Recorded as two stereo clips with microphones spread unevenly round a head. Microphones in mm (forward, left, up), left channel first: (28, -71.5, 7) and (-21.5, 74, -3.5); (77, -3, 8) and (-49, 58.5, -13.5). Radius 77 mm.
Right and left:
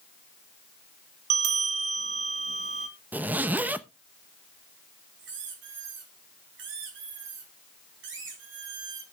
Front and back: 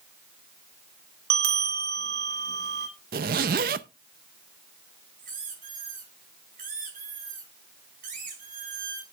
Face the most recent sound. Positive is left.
turn(degrees=125)